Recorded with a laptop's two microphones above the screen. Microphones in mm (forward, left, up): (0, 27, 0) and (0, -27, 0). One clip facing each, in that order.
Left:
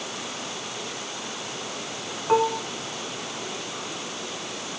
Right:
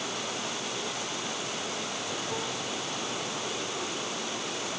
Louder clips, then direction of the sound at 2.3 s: Left 12 dB; 70° left (ahead or behind).